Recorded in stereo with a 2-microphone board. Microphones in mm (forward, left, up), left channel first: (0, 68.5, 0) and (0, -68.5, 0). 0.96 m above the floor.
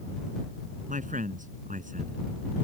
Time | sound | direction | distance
0.9 | a man speaking | 70° right (ahead or behind) | ?